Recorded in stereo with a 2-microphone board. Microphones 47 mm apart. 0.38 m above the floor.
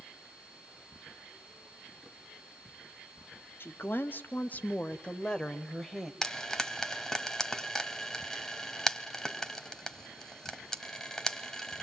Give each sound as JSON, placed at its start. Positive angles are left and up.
{"t": 3.6, "sound": "a woman speaking", "side_deg": 50, "distance_m": 2.0}
{"t": 6.2, "sound": "frying", "side_deg": 10, "distance_m": 1.7}